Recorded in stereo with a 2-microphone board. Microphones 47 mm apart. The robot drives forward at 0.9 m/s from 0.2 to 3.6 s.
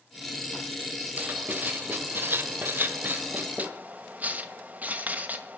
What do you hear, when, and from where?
1.2 s writing: 35° right (ahead or behind), 1.7 m